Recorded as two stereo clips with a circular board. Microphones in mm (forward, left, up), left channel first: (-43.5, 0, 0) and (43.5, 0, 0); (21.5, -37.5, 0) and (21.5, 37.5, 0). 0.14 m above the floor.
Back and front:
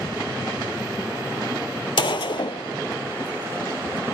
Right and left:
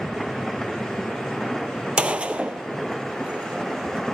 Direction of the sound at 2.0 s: 160° left.